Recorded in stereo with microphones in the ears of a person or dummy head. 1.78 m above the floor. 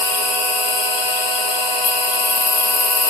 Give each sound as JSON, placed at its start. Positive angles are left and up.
{"t": 0.0, "sound": "an insect", "side_deg": 60, "distance_m": 3.0}